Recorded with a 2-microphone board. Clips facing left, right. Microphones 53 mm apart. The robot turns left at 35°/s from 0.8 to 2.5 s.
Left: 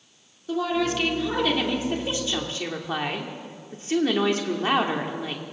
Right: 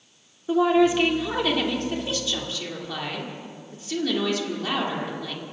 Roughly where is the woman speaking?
Behind right.